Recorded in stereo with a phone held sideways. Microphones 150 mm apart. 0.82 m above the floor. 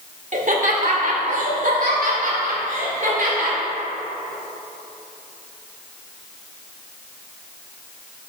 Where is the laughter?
60° right (ahead or behind), 1.1 m; by 3.6 s 70° right (ahead or behind), 3 m.